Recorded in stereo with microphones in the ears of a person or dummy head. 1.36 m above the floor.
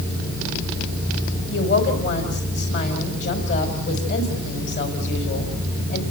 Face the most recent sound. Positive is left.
turn(degrees=75)  # may be behind; listen again after turning